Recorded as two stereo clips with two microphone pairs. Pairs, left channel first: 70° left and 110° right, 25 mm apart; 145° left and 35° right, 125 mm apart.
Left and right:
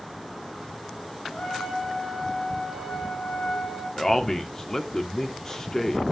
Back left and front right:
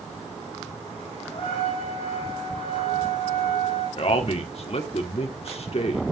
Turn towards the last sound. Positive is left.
turn(degrees=135)